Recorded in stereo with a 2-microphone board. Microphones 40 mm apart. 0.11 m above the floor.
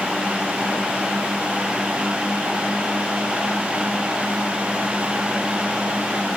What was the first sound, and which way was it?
Only background noise.